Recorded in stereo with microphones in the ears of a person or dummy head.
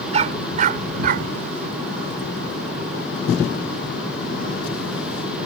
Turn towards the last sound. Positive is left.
turn(degrees=-60)  # may be behind; listen again after turning